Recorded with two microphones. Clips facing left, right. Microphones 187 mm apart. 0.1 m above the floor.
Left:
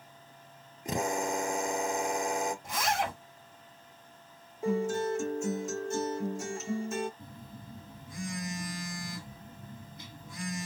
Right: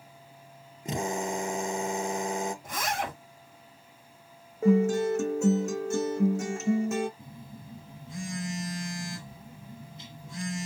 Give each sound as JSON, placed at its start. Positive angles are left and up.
{"t": 0.8, "sound": "a drill", "side_deg": -25, "distance_m": 1.5}
{"t": 2.6, "sound": "a zipper", "side_deg": -50, "distance_m": 2.5}
{"t": 4.6, "sound": "a guitar", "side_deg": -75, "distance_m": 1.1}
{"t": 7.2, "sound": "a phone buzzing", "side_deg": -30, "distance_m": 2.0}